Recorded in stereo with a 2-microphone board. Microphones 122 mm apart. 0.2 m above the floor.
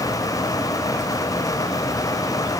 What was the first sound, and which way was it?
Only background noise.